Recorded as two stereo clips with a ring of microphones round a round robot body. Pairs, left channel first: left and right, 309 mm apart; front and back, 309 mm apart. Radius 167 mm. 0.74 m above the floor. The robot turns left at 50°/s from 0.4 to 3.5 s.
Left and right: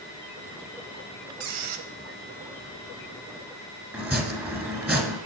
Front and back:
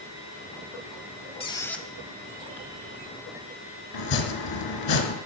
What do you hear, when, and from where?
1.4 s a squeak: 70° right, 0.7 m; by 1.9 s 90° right, 0.7 m
3.9 s chopping: 5° right, 1.5 m